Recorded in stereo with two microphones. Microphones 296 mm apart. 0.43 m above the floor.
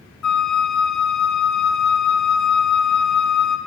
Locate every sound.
0.2 s a flute: 70° left (ahead or behind), 1.0 m